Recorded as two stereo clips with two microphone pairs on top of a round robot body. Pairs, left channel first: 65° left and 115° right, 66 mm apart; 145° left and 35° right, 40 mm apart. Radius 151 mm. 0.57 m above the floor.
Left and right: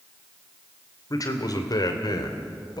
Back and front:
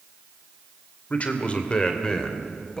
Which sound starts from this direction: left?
A man speaking, at 1.1 s.